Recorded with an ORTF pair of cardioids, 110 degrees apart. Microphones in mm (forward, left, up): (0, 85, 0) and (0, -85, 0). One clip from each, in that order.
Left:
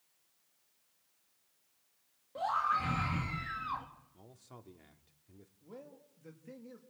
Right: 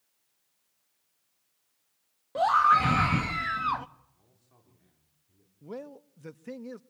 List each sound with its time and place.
2.4 s a scream: 65° right, 1.5 m
4.1 s a man speaking: 65° left, 3.5 m
5.6 s a man speaking: 65° right, 1.3 m